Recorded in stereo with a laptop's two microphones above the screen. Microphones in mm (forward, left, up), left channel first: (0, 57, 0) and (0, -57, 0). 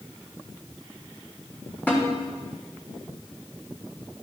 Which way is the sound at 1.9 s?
15° left (ahead or behind).